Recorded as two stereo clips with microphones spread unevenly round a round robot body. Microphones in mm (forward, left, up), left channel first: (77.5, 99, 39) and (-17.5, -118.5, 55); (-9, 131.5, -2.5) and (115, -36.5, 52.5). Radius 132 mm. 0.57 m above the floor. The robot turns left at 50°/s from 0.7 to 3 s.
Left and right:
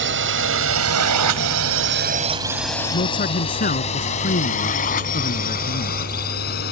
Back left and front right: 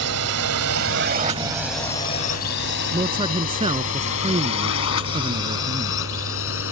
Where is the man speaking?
15° left; by 6.0 s 10° left.